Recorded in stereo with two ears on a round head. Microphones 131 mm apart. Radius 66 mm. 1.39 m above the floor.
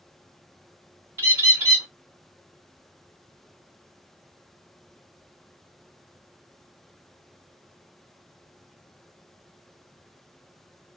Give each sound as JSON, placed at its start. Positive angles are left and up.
{"t": 1.2, "sound": "a bird", "side_deg": -15, "distance_m": 1.3}